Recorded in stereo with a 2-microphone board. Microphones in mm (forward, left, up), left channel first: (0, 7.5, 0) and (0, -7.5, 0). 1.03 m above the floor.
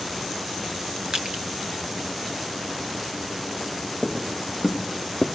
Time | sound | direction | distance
1.1 | crushing | 50° right (ahead or behind) | 1.2 m
4.0 | footsteps | 45° right (ahead or behind) | 2.5 m